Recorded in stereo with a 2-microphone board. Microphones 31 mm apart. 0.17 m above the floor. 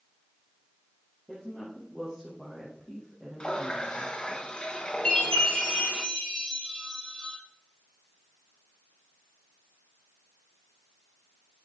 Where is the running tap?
35° left (ahead or behind), 1.2 m.